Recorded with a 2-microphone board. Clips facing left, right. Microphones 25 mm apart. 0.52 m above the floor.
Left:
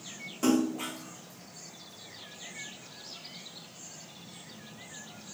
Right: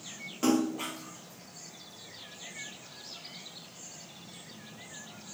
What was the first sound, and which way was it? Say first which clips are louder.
A splash: left 1 dB; 20° right (ahead or behind).